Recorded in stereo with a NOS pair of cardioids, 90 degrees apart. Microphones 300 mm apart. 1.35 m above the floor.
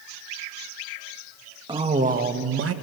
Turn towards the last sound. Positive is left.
turn(degrees=-50)